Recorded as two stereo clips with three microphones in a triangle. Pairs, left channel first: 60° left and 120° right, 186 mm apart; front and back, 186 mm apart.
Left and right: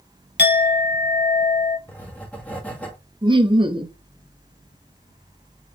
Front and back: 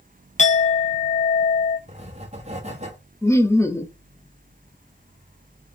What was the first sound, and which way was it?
A clink, 45° left.